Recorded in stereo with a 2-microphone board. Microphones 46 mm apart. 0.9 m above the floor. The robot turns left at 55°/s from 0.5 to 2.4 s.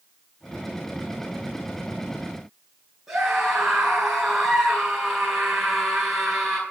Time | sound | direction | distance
3.1 | a scream | 15° right (ahead or behind) | 8.5 m